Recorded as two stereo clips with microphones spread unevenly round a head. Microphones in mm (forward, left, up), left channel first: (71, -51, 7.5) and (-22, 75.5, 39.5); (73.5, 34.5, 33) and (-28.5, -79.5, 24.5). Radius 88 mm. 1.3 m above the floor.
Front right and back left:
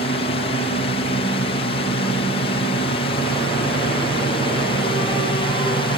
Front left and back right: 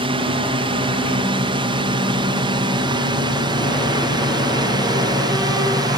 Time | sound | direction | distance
0.0 | a drone | 85° right | ?